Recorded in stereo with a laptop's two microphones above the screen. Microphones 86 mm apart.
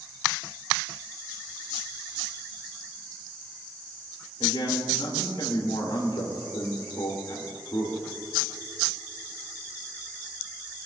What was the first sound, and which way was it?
A man speaking, 75° left (ahead or behind).